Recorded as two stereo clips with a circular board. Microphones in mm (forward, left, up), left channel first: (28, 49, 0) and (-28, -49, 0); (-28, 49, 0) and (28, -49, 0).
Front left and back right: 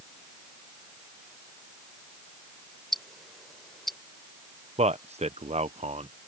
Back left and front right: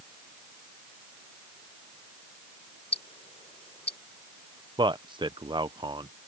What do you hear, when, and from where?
2.9 s ticking: 150° left
4.8 s a man speaking: 105° right